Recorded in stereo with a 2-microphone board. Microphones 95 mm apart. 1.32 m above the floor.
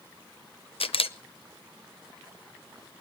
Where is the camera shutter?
80° left, 0.6 m.